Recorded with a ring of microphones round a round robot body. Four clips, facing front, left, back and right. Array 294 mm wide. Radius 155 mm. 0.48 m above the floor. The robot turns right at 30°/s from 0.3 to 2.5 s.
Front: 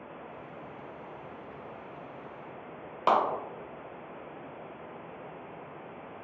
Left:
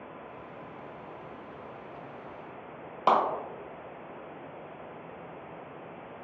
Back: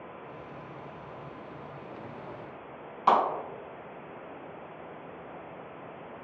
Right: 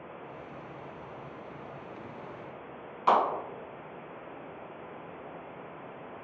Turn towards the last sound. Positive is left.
turn(degrees=45)